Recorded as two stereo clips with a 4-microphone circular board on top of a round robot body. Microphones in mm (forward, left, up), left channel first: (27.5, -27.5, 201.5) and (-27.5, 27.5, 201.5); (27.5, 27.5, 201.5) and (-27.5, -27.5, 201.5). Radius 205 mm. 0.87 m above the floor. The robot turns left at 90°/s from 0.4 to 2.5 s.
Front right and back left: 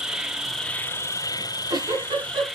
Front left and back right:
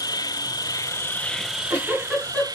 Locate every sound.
0.0 s an insect: 55° left, 1.0 m; by 2.6 s 135° right, 1.0 m
1.4 s a giggle: 160° right, 6 m; by 2.5 s 100° left, 6 m